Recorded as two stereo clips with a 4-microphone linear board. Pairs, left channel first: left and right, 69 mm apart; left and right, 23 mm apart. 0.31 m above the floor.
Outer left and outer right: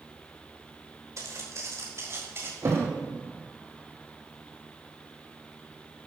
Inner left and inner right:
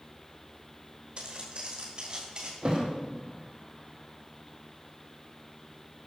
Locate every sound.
1.2 s footsteps: 50° right (ahead or behind), 6.5 m; by 2.5 s 35° right (ahead or behind), 7 m
2.6 s a thud: 45° right (ahead or behind), 4 m